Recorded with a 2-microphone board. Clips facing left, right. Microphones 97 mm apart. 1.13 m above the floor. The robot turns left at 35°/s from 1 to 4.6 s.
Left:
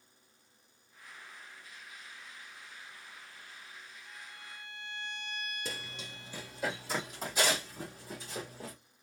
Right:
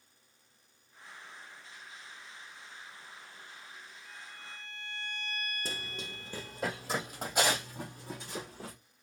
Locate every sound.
4.0 s a violin: 75° right (ahead or behind), 5.5 m; by 6.7 s 80° right, 5.5 m
5.7 s running footsteps: 40° right (ahead or behind), 1.6 m; by 8.7 s 70° right (ahead or behind), 5.5 m